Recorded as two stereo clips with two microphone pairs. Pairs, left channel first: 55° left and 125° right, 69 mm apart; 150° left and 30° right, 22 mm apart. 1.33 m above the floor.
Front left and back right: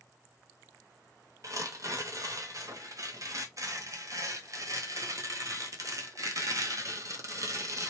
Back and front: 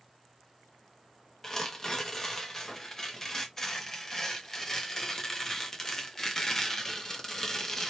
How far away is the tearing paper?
About 0.6 m.